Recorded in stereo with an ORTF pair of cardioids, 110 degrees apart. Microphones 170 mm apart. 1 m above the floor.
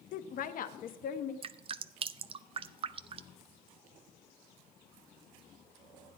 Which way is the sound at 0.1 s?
55° left.